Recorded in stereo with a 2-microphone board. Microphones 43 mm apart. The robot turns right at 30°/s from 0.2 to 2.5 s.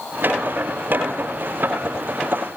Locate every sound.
Only background noise.